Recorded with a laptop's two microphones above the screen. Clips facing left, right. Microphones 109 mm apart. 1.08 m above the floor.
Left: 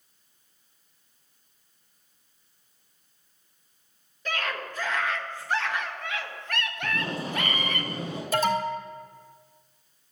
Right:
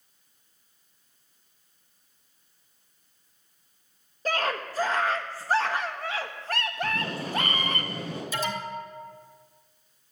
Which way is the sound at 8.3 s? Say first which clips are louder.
Left 8 dB; 60° left (ahead or behind).